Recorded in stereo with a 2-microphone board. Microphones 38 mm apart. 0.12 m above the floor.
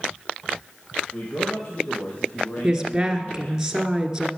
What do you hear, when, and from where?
1.1 s a man speaking: 35° left (ahead or behind), 3 m
2.6 s a woman speaking: 15° right (ahead or behind), 1.5 m